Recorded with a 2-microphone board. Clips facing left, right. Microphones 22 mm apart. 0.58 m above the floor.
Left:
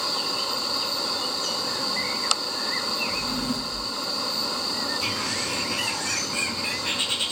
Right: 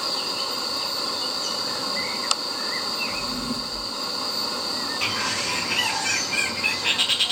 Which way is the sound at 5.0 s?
45° right (ahead or behind).